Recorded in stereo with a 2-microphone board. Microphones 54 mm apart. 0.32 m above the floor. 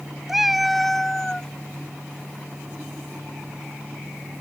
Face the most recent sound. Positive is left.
turn(degrees=15)  # may be behind; listen again after turning